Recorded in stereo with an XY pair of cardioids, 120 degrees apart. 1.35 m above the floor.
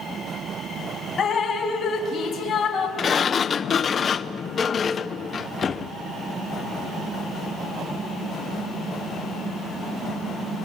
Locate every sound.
1.2 s dripping: 40° left, 3.5 m
3.0 s a sliding door: 35° left, 0.7 m